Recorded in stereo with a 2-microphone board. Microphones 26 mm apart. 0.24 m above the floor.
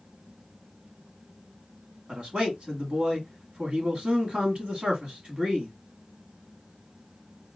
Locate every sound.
2.1 s a man speaking: 50° right (ahead or behind), 2.0 m